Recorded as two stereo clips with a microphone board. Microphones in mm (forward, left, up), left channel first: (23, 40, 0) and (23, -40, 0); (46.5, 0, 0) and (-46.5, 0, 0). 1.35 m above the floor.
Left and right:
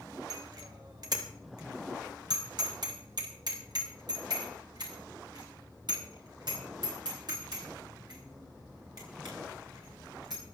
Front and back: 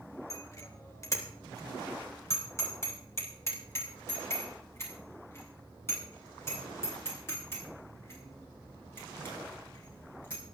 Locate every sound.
0.3 s a bicycle bell: 55° right, 3 m; by 10.4 s 65° right, 16 m